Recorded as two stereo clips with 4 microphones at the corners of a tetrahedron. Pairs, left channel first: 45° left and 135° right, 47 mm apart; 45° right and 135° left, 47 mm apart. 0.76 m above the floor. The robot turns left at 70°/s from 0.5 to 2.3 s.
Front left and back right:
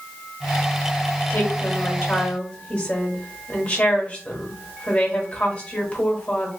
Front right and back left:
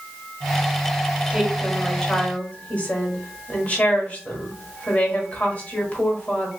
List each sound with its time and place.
1.3 s a woman speaking: 65° left, 1.3 m; by 6.5 s 5° right, 1.3 m